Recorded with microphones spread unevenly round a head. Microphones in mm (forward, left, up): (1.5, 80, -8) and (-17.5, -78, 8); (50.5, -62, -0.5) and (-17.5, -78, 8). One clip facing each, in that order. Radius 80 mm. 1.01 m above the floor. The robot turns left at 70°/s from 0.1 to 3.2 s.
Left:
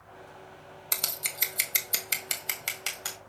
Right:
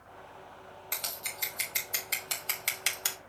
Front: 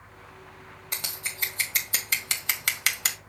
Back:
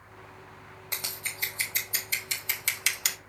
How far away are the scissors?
About 1.7 m.